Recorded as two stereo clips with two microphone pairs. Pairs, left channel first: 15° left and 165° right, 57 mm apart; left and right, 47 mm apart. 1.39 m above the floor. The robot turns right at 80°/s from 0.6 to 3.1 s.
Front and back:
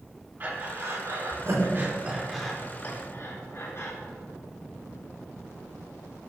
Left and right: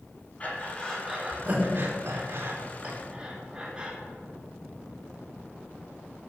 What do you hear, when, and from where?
0.4 s breathing: 150° left, 3.5 m; by 3.9 s 10° right, 3.5 m